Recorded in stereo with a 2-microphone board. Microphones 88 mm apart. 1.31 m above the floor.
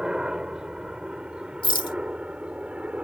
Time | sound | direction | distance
0.0 | a helicopter | 10° right (ahead or behind) | ?
1.6 | a rattle | 65° left (ahead or behind) | ?